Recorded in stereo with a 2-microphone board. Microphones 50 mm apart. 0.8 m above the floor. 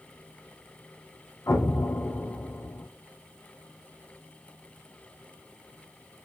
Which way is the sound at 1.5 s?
80° left.